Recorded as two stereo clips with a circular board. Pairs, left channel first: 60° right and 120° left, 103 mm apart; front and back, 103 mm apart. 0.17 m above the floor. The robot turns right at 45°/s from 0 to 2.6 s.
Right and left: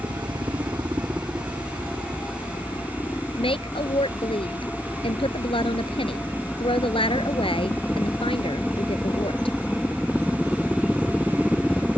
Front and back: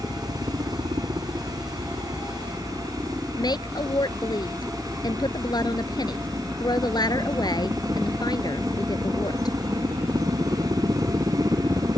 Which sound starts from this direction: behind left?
A helicopter, at 0.0 s.